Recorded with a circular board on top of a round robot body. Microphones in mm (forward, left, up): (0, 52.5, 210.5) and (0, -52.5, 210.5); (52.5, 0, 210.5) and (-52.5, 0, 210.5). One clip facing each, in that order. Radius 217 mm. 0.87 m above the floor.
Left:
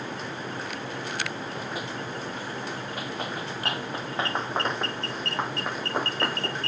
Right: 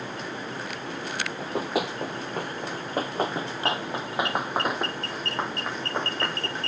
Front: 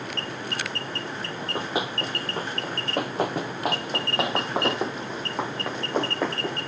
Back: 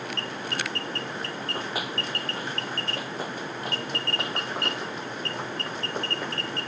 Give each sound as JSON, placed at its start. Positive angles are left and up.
{"t": 1.4, "sound": "running footsteps", "azimuth_deg": -75}